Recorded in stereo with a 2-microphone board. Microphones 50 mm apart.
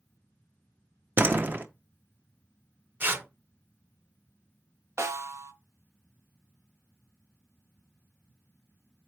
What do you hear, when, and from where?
1.2 s a door slam: 40° right (ahead or behind), 0.6 m
3.0 s tearing paper: 45° right (ahead or behind), 0.8 m
5.0 s a snare drum: 70° right (ahead or behind), 0.7 m